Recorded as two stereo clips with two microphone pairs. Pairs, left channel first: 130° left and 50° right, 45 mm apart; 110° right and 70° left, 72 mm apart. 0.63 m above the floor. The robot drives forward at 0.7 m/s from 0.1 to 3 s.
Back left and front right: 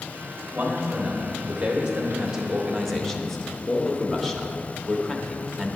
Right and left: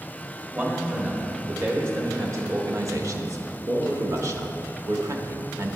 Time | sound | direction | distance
0.5 | a man speaking | 10° left | 2 m